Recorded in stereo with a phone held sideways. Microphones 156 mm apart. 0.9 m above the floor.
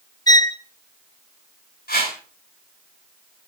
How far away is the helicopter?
No helicopter in this recording.